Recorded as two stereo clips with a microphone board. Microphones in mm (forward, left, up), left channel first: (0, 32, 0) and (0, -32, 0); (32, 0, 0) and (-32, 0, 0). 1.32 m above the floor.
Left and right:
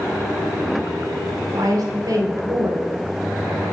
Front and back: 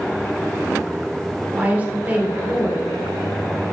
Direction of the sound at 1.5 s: 110° right.